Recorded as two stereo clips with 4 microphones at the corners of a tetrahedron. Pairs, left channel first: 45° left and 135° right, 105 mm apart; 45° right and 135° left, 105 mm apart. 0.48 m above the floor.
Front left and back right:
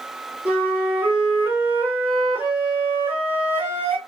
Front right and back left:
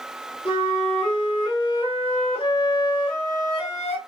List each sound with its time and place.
0.5 s a flute: 60° right, 2 m